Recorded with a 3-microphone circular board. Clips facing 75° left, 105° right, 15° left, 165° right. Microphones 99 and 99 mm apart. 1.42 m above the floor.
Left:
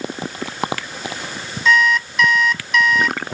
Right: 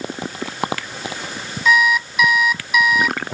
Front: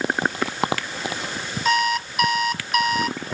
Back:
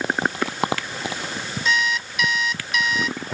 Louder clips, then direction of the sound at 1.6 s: Even, front 3 dB; 25° right.